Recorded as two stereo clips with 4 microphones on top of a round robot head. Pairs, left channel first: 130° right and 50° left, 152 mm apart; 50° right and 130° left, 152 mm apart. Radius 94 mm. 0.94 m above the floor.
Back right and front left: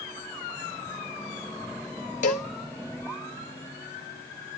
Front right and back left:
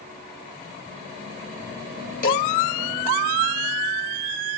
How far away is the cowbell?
About 1.5 m.